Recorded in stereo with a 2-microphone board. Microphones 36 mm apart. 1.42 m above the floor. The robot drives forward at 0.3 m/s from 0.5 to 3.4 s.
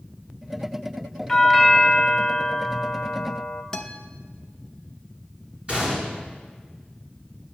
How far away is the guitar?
About 0.7 m.